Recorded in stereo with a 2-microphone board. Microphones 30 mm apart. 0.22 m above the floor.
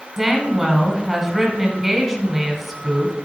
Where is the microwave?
No microwave in this recording.